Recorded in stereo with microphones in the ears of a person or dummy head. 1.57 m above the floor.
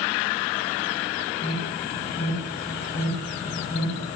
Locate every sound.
1.4 s an alarm: 40° left (ahead or behind), 7.5 m